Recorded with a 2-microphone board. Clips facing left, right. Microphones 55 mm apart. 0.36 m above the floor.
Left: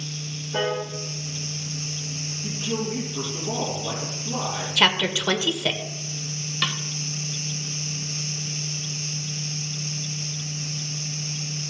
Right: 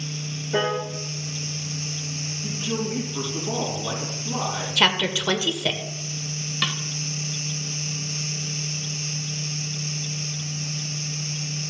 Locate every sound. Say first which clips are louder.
0.5 s a piano: right 2 dB; 80° right, 4 m
2.4 s a man speaking: even; 30° right (ahead or behind), 4.5 m
4.8 s a woman speaking: even; 15° left (ahead or behind), 1.0 m
6.6 s a snare drum: even; 5° right (ahead or behind), 1.2 m